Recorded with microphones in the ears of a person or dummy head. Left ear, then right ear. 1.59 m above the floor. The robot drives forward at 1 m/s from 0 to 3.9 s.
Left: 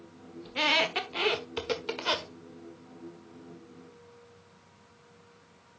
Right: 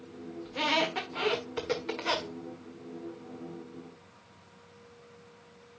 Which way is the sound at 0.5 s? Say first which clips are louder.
Left 3 dB; 20° left (ahead or behind).